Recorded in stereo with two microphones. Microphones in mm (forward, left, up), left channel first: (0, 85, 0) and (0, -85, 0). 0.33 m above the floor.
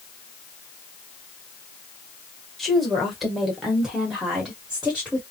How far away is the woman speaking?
About 1.3 m.